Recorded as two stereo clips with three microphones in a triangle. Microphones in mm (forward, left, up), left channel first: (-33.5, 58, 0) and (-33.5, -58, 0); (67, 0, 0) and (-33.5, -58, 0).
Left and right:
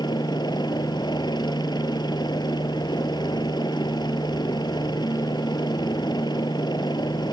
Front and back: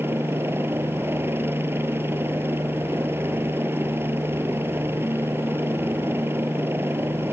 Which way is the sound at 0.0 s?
140° left.